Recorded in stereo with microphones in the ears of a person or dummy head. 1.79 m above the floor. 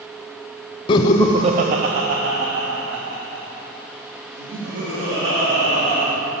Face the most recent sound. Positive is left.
turn(degrees=-65)  # may be behind; listen again after turning